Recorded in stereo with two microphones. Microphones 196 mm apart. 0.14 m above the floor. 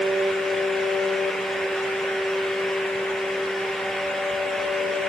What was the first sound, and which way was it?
Only background noise.